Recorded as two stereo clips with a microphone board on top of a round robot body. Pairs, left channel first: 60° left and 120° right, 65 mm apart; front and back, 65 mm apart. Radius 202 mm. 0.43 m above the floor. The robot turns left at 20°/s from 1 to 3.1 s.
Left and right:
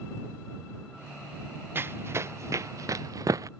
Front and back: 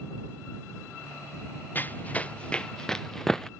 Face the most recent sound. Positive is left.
turn(degrees=-80)